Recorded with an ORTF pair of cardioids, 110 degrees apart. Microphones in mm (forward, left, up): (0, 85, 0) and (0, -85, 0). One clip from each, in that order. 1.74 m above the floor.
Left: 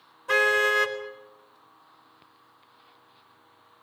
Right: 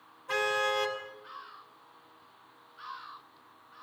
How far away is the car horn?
About 4 m.